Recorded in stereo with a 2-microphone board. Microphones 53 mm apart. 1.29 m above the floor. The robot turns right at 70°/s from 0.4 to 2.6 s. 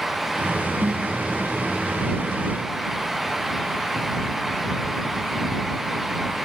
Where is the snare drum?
40° right (ahead or behind); by 1.1 s 15° right (ahead or behind).